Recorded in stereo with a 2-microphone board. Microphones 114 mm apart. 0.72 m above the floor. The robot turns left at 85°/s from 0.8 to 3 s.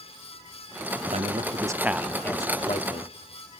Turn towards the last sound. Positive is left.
turn(degrees=100)